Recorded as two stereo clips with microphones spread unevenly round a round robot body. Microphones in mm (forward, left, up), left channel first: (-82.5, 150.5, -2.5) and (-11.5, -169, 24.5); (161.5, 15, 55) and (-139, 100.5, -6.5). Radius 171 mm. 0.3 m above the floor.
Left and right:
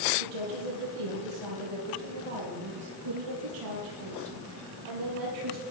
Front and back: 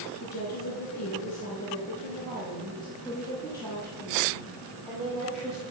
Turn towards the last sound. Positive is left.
turn(degrees=-110)